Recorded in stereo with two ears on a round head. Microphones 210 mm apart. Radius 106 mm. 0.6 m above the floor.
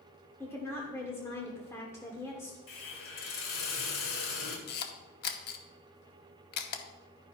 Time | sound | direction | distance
0.4 | a woman speaking | 10° left (ahead or behind) | 1.2 m
2.7 | a hiss | 65° left (ahead or behind) | 2 m
4.7 | a camera shutter | 45° left (ahead or behind) | 0.9 m